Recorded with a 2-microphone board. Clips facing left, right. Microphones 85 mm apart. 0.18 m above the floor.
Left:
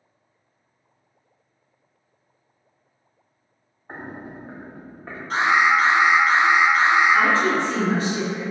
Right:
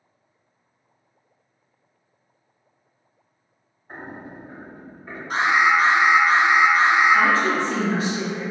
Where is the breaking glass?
I don't hear breaking glass.